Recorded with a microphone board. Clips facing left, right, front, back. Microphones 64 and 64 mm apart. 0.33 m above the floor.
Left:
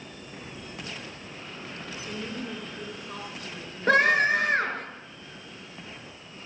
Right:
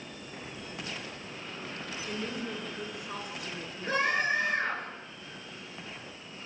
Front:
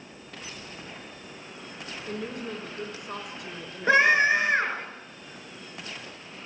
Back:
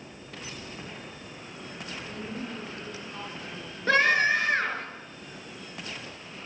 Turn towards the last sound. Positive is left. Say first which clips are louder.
# left 8 dB, front 2 dB
turn(degrees=75)